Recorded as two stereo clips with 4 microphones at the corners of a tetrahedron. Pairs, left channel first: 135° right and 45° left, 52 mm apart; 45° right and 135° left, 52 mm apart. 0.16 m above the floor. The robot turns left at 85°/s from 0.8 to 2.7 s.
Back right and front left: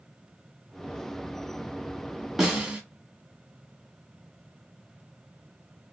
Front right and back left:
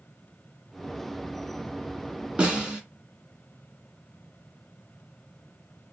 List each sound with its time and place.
2.4 s a snare drum: 120° left, 1.6 m; by 2.8 s 95° left, 1.6 m